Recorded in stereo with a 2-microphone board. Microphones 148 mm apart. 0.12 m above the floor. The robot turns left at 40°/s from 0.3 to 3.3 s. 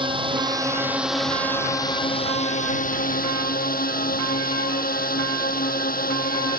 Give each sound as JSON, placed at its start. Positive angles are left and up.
{"t": 0.0, "sound": "a drone", "azimuth_deg": -145}